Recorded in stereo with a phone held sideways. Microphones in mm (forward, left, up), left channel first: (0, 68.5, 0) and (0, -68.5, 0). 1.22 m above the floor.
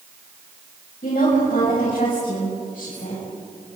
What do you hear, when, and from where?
1.0 s a woman speaking: 85° left, 7.5 m; by 3.2 s 75° left (ahead or behind), 7 m